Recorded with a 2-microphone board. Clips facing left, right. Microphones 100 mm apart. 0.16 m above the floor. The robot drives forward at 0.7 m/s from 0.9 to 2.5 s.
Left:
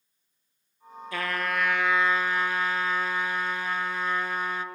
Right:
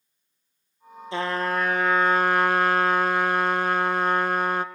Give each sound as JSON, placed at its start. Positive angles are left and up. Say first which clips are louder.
{"t": 1.1, "sound": "a trumpet", "louder": "right 4 dB", "side_deg": -30, "distance_m": 1.1}